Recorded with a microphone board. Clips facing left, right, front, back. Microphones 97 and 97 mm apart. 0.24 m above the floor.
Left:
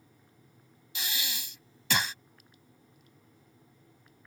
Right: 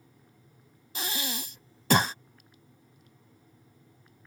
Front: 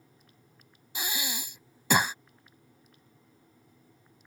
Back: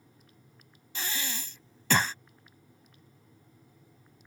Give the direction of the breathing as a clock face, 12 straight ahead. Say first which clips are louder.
Right 5 dB, front 1 dB; 2 o'clock.